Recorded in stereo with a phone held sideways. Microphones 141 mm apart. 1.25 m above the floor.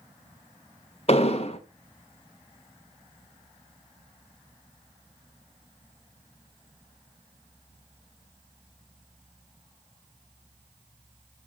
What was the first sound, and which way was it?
An explosion, 45° left (ahead or behind).